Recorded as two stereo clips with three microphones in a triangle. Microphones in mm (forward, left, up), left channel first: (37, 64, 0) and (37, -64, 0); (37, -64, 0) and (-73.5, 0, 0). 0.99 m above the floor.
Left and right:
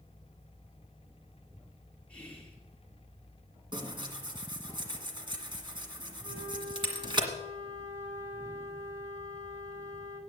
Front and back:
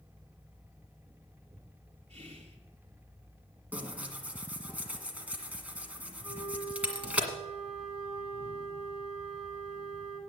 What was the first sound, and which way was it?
Whispering, 175° left.